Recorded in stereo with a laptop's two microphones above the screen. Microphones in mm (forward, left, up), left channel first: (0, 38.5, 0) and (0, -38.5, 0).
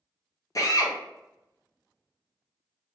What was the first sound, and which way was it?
A drill, 45° left (ahead or behind).